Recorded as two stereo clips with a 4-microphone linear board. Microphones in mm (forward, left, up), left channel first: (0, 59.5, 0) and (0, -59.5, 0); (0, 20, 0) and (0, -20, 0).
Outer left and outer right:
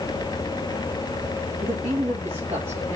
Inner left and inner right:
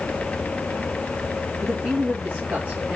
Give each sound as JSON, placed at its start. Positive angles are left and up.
{"t": 1.6, "sound": "a man speaking", "side_deg": -65, "distance_m": 2.0}